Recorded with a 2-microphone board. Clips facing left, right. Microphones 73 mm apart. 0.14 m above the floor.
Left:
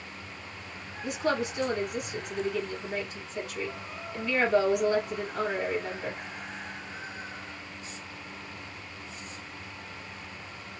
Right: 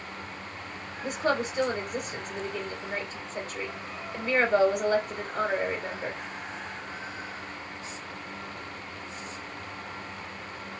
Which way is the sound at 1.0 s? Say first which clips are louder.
Right 1 dB; 35° right (ahead or behind).